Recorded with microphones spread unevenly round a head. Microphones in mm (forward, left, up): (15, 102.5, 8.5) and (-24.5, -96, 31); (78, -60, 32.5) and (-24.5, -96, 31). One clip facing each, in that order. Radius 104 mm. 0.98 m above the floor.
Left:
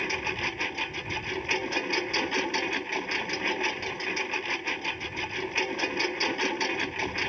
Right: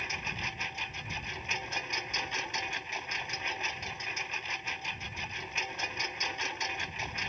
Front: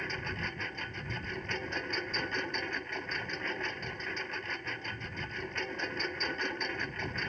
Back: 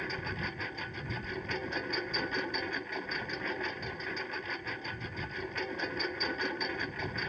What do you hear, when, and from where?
0.0 s a lawn mower: 110° left